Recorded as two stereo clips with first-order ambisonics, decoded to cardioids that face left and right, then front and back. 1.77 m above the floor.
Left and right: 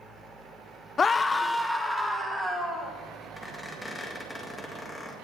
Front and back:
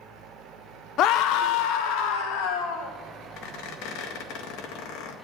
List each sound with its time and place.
1.0 s a scream: 25° left, 0.8 m; by 2.9 s 5° right, 3 m
3.4 s a squeak: 5° left, 1.9 m